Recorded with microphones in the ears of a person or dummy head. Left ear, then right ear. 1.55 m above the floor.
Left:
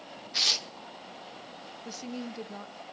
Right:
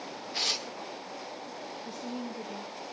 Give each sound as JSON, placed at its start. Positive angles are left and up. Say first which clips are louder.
{"t": 0.3, "sound": "tearing paper", "louder": "left 4 dB", "side_deg": 20, "distance_m": 0.7}
{"t": 1.9, "sound": "a woman speaking", "louder": "right 1 dB", "side_deg": 50, "distance_m": 1.4}